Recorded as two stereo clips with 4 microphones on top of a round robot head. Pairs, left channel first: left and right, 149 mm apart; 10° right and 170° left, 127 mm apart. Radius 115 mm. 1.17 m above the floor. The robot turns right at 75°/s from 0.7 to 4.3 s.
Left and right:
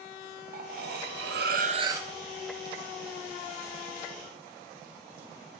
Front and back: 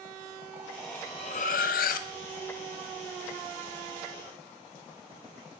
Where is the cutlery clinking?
110° right, 0.6 m; by 2.1 s straight ahead, 0.6 m.